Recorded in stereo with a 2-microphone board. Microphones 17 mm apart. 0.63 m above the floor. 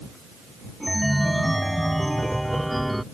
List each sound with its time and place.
0.8 s a chime: centre (ahead or behind)